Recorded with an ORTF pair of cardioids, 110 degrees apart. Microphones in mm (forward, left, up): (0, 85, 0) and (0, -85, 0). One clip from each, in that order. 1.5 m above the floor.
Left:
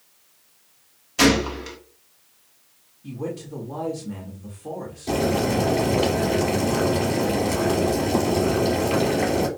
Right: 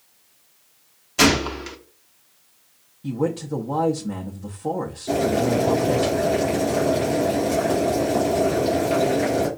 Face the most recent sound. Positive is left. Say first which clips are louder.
# right 1 dB
turn(degrees=35)